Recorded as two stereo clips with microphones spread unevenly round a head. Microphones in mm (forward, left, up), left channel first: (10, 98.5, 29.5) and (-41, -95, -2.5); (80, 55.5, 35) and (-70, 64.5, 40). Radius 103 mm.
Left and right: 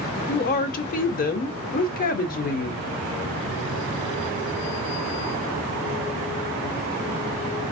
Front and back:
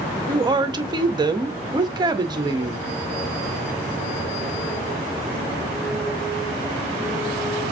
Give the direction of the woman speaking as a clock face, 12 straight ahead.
8 o'clock.